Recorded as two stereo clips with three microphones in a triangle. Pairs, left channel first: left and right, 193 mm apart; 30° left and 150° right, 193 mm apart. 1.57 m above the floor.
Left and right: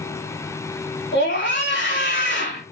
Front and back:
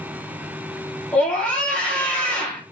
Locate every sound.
1.1 s a scream: 110° left, 4 m